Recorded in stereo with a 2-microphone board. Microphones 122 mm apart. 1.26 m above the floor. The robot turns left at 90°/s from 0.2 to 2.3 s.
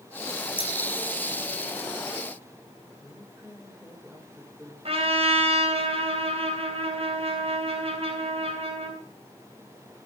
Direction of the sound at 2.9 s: 5° right (ahead or behind).